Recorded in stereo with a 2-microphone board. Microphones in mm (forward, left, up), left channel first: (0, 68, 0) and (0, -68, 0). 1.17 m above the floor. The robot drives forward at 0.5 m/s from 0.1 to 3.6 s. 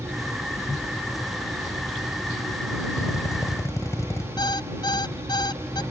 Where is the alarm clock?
30° left (ahead or behind).